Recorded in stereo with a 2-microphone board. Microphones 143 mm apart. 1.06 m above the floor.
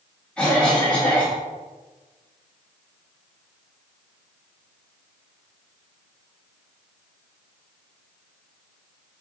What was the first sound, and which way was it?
A cough, 5° left (ahead or behind).